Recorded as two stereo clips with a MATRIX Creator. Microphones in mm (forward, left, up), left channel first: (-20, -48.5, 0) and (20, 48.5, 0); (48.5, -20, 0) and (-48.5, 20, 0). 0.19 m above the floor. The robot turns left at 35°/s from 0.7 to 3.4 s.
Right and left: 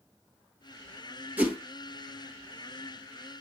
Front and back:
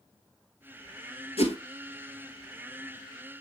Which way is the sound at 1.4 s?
5° right.